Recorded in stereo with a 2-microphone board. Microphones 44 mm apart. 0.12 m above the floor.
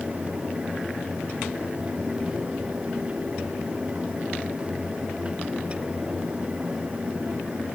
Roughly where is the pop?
No pop in this recording.